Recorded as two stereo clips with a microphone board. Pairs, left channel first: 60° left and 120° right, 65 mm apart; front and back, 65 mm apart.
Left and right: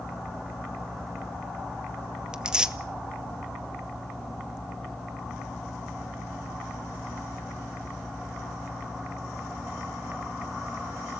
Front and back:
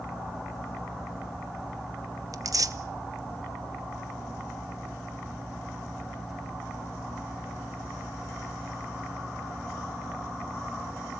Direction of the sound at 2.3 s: 165° left.